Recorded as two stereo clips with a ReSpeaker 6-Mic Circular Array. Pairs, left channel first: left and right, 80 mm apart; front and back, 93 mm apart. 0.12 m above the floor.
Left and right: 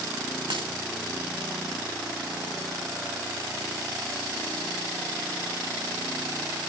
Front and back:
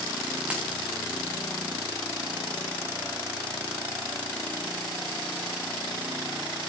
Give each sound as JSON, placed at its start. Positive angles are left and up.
{"t": 0.5, "sound": "a dropped coin", "azimuth_deg": -105, "distance_m": 3.0}